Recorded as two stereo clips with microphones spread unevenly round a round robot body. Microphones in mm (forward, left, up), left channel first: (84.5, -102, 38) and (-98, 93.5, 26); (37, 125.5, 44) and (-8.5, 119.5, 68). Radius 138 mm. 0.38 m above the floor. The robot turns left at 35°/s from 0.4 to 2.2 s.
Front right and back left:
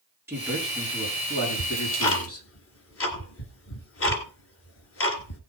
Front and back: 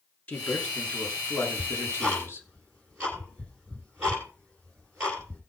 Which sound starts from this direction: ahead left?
A man speaking, at 0.3 s.